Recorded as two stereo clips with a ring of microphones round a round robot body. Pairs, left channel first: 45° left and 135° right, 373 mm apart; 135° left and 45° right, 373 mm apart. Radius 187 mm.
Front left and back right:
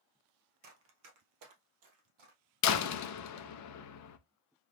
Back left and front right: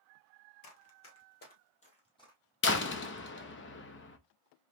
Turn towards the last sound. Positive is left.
turn(degrees=80)